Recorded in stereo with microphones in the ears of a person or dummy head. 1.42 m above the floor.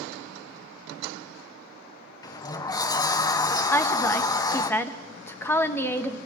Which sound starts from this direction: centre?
A woman speaking, at 3.7 s.